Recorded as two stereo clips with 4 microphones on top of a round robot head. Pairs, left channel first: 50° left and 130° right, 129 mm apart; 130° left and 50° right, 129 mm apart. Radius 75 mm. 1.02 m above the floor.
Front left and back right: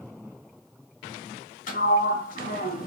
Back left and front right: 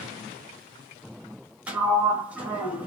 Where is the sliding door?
30° left, 0.9 m.